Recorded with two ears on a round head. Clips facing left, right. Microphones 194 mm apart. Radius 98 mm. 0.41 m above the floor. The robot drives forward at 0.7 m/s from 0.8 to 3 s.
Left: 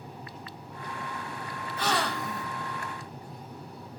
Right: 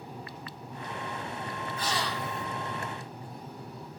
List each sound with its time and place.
1.8 s a gasp: 55° left (ahead or behind), 0.8 m; by 2.5 s 35° left (ahead or behind), 1.1 m